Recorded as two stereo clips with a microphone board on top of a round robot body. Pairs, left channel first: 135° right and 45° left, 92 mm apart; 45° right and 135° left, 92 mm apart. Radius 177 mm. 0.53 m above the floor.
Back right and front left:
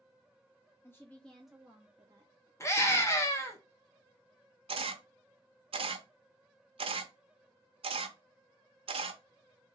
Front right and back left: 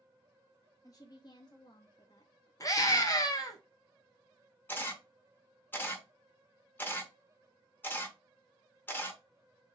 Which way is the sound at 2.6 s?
85° right.